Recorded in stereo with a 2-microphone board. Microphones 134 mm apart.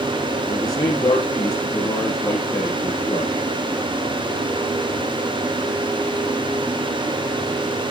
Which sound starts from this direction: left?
A man speaking, at 0.5 s.